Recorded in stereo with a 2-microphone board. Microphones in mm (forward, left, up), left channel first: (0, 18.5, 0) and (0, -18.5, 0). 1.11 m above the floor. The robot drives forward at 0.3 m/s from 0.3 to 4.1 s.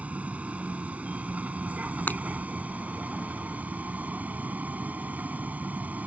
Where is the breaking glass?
55° left (ahead or behind).